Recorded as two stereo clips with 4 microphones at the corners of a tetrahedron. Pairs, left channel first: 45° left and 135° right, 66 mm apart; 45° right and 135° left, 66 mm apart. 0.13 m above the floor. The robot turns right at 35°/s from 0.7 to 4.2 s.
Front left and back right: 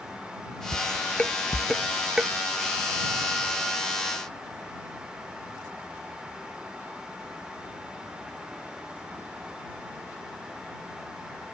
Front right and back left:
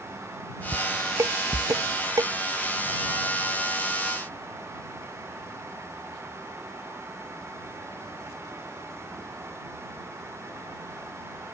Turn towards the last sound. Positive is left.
turn(degrees=-140)